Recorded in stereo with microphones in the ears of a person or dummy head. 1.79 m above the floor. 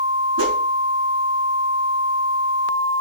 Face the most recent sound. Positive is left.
turn(degrees=-75)  # may be behind; listen again after turning